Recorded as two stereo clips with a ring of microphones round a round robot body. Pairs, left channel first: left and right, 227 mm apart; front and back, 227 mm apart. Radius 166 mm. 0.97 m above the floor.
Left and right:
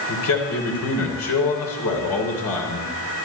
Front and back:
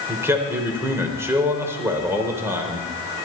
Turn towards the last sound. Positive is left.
turn(degrees=100)